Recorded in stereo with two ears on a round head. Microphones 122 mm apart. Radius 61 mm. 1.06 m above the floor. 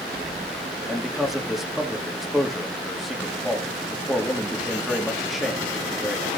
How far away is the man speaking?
About 1.9 m.